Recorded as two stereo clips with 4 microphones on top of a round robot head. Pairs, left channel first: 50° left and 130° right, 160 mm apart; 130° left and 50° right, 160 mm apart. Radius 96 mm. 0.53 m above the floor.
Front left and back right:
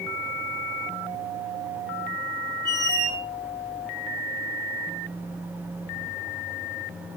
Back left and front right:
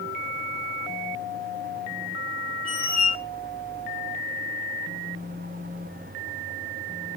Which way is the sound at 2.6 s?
165° left.